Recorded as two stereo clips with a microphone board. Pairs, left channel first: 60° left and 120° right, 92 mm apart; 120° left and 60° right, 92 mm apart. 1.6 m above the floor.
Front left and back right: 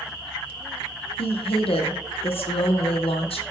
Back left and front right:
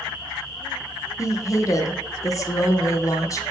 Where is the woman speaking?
65° left, 0.7 m.